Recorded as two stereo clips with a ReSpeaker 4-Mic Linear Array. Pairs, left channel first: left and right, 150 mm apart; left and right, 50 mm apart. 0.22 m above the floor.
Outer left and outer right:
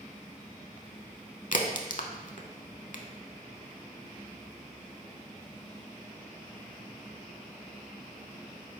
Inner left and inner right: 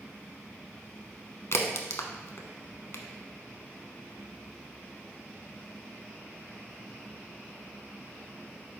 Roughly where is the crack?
Left.